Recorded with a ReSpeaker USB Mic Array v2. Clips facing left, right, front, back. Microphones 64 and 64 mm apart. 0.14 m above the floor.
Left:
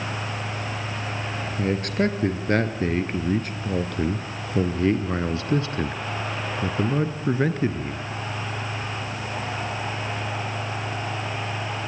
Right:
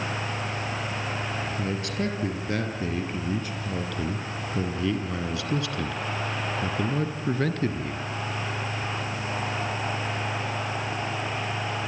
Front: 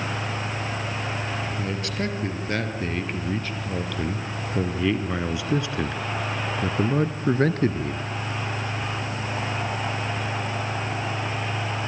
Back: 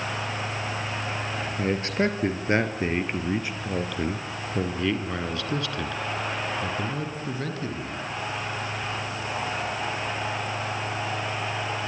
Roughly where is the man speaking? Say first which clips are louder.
Left 9 dB, back 4 dB; behind left.